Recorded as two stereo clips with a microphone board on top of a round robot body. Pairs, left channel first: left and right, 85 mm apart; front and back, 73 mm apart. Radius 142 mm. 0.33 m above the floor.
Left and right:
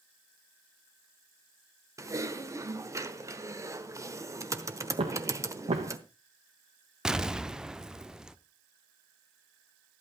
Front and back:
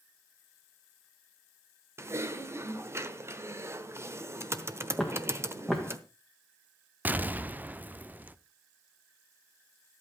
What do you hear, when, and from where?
2.0 s typing on a keyboard: 135° right, 1.3 m
5.0 s footsteps: 90° right, 1.4 m
7.0 s an explosion: 165° right, 0.8 m